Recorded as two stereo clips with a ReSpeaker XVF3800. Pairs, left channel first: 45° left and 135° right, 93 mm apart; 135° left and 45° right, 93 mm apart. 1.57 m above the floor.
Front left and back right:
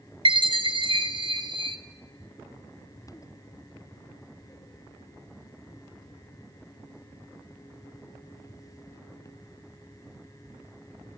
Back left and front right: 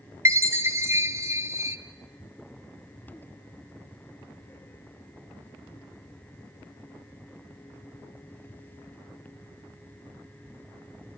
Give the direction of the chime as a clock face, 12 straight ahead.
4 o'clock.